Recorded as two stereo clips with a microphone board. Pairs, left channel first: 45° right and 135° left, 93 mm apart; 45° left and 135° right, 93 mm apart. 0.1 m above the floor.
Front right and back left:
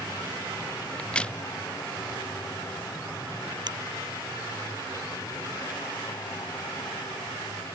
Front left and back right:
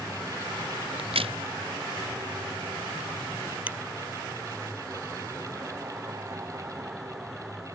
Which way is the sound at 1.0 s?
125° right.